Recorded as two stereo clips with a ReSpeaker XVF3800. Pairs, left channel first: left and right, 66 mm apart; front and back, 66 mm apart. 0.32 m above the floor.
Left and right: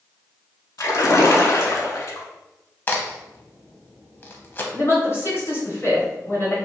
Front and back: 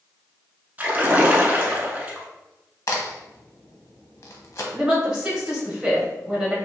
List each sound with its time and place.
0.8 s a splash: 115° left, 0.7 m
2.9 s a crack: 30° left, 0.6 m
4.7 s a woman speaking: 105° left, 1.2 m